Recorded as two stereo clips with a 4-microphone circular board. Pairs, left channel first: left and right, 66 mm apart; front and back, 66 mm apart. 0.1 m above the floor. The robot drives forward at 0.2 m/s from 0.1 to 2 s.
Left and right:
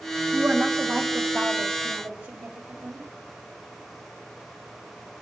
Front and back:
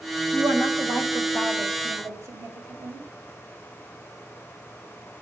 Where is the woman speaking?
145° right, 4 m; by 3.0 s 150° right, 4.5 m.